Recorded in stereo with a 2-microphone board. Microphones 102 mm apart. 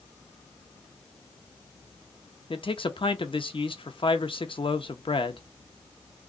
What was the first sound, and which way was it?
A man speaking, 60° left (ahead or behind).